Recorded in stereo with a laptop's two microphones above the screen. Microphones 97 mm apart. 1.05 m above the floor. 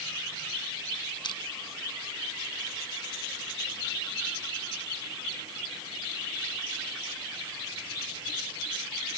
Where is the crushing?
50° left (ahead or behind).